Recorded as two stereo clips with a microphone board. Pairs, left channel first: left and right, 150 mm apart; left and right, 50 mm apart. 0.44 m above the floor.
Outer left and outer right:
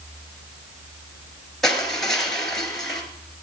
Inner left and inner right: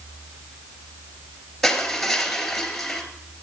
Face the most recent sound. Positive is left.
turn(degrees=5)  # may be behind; listen again after turning